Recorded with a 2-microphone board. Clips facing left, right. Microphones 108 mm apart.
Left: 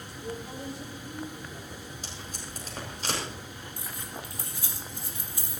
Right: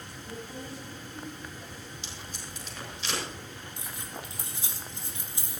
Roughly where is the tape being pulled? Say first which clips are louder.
Left 2 dB; left.